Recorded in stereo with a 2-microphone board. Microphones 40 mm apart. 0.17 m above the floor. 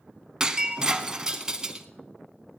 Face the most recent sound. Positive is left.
turn(degrees=-15)  # may be behind; listen again after turning